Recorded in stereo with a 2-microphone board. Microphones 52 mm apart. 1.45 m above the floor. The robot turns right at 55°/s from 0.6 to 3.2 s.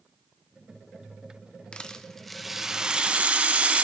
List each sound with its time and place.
1.7 s a rattle: 140° left, 0.6 m; by 3.9 s 135° right, 0.6 m